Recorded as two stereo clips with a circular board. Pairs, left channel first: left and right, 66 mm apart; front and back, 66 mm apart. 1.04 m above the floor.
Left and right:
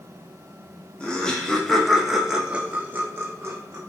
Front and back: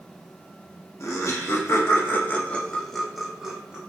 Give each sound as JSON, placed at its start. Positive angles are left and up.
{"t": 1.0, "sound": "laughter", "azimuth_deg": 20, "distance_m": 1.2}